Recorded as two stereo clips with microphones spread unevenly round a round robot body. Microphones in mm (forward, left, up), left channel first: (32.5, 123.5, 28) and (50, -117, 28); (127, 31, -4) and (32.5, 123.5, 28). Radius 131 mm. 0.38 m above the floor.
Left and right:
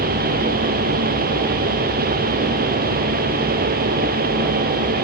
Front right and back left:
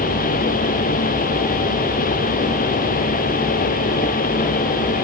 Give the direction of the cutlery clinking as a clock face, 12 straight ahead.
I don't hear cutlery clinking.